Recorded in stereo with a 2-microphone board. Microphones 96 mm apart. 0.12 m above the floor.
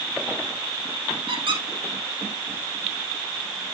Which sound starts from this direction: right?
A squeak, at 1.3 s.